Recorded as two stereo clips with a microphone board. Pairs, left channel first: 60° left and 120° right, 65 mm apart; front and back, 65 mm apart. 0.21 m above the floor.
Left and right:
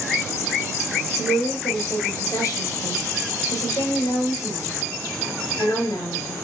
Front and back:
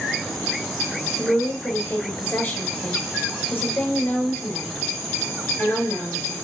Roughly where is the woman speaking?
Ahead left.